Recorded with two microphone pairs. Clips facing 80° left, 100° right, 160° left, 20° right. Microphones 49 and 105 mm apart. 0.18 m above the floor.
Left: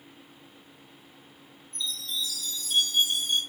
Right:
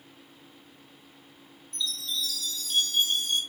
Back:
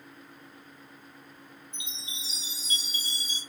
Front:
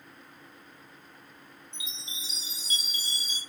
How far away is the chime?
About 4.5 m.